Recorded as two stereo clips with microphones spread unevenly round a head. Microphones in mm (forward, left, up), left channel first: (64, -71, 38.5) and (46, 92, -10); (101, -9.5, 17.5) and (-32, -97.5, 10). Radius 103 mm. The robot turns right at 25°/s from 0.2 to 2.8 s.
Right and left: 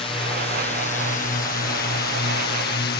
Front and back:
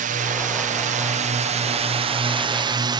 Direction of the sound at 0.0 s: 155° right.